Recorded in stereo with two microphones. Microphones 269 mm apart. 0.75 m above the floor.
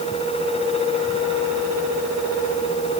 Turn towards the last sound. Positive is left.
No sound to turn to.